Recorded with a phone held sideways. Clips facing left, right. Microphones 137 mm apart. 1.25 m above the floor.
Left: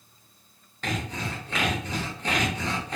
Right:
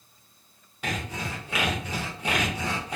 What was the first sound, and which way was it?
Sawing, 10° right (ahead or behind).